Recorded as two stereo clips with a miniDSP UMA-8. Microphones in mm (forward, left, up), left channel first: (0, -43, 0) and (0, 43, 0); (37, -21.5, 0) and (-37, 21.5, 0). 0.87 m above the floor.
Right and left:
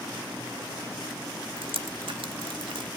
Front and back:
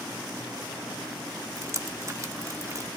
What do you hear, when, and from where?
1.6 s dripping: 95° left, 1.3 m